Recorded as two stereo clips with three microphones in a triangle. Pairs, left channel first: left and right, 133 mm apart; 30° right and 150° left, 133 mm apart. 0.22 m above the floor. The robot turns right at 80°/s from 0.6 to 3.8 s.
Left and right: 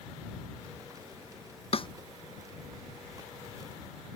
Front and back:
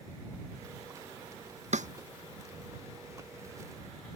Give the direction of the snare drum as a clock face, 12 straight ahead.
8 o'clock.